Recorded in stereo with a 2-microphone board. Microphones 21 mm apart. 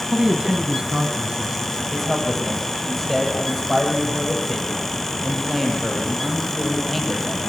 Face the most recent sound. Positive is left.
turn(degrees=5)  # may be behind; listen again after turning